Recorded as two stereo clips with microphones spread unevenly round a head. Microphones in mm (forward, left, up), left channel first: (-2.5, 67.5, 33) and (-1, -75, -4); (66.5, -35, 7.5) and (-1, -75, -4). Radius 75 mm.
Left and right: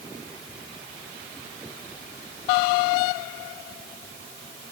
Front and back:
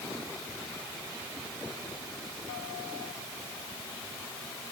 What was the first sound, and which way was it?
Only background noise.